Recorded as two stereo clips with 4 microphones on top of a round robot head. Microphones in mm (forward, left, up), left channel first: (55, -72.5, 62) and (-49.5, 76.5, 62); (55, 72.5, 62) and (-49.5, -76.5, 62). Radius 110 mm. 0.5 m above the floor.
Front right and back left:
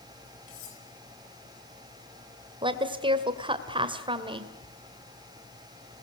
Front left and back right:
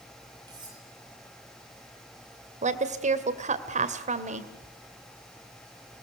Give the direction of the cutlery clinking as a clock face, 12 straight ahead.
2 o'clock.